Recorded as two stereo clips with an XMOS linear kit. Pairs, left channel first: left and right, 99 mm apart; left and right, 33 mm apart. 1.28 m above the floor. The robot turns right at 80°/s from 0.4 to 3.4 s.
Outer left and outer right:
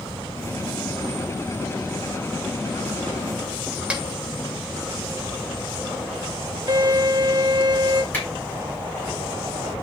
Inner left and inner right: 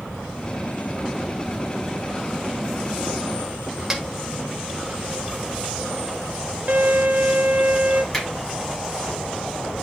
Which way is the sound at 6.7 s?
45° right (ahead or behind).